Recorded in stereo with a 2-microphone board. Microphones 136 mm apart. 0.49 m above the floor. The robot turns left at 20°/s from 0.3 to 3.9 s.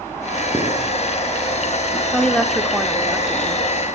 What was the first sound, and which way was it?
Writing, 20° right (ahead or behind).